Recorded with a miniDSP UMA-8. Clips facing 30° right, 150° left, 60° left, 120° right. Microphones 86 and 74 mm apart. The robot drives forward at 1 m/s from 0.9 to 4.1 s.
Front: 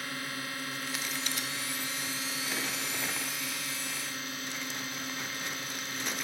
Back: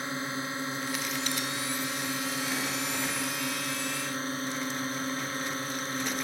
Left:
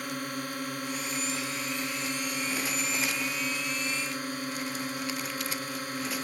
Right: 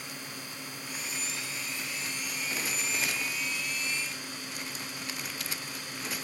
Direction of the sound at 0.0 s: 85° left.